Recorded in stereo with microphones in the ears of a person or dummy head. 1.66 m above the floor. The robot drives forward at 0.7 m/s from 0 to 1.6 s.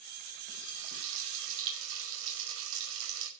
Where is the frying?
70° right (ahead or behind), 5 m; by 3.3 s 75° right (ahead or behind), 5 m.